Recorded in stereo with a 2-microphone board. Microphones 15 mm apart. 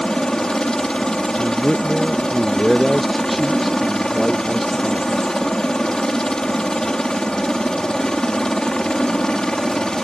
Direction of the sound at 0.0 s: 50° left (ahead or behind).